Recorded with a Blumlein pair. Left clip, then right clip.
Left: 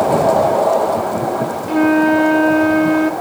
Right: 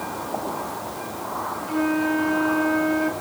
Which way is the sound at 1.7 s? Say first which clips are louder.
Left 10 dB; 25° left.